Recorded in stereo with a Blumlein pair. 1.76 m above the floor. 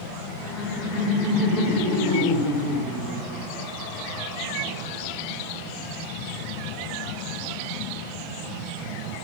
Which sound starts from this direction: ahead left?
Laughter, at 0.4 s.